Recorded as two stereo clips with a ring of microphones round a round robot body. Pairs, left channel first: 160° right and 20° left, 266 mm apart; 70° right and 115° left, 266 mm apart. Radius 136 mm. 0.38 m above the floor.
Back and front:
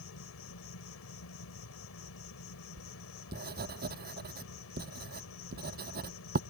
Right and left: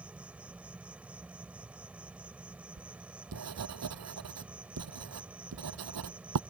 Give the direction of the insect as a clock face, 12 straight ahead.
5 o'clock.